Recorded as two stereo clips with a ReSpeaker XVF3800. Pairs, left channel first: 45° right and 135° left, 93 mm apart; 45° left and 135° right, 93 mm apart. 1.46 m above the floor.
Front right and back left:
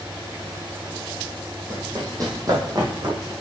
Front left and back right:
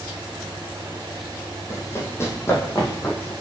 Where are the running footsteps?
95° left, 2.0 m; by 3.3 s 100° left, 3 m.